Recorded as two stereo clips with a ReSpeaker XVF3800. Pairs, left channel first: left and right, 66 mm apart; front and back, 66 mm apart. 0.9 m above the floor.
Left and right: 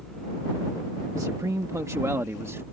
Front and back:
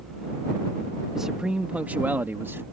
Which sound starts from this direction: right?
A man speaking, at 1.1 s.